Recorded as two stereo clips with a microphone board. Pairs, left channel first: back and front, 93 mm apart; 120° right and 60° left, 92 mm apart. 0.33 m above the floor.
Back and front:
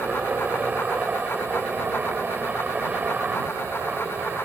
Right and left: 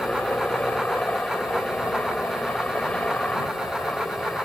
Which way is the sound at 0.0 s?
55° right.